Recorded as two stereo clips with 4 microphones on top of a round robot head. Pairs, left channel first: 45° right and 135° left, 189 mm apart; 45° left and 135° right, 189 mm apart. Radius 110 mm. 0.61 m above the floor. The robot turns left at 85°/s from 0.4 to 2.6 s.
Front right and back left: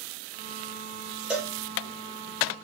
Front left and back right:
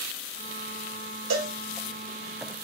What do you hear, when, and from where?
1.3 s a cowbell: 140° right, 0.9 m; by 1.6 s 160° right, 0.9 m